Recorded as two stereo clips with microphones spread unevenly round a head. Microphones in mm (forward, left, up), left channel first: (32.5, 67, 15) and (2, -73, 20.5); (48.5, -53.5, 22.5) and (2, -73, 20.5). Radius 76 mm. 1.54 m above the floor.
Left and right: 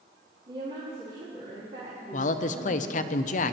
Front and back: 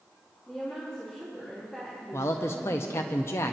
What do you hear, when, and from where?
0.5 s a woman speaking: 60° right, 3 m
2.1 s a man speaking: 60° left, 0.5 m